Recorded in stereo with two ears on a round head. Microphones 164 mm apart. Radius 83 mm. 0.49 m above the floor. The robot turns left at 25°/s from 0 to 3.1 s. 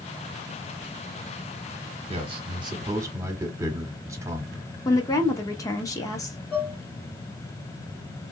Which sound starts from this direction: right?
A man speaking, at 2.1 s.